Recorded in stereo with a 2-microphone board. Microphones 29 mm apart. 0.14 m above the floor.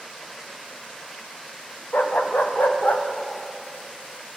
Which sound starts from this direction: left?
A dog barking, at 1.9 s.